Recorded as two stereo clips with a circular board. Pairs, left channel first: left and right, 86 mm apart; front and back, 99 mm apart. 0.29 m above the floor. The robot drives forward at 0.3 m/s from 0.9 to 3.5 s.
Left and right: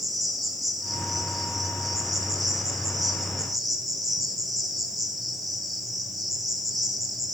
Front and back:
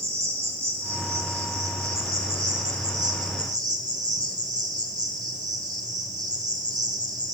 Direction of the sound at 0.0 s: Straight behind.